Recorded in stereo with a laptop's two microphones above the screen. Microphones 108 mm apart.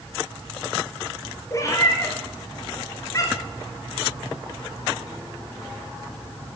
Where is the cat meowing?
30° left (ahead or behind), 1.5 m.